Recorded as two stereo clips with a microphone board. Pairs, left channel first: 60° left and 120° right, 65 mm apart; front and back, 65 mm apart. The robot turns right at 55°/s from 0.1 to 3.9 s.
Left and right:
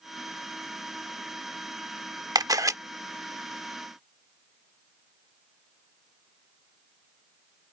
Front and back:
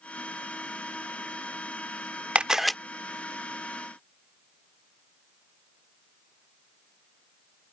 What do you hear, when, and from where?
2.4 s a camera shutter: 110° right; by 2.8 s 85° right